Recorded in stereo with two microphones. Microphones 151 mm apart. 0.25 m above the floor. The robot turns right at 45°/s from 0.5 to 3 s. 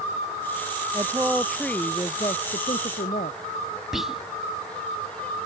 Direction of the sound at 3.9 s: Centre (ahead or behind).